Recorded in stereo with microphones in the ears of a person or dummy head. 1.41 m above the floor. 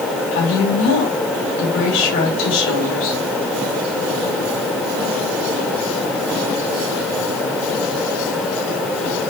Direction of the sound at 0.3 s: 70° left (ahead or behind).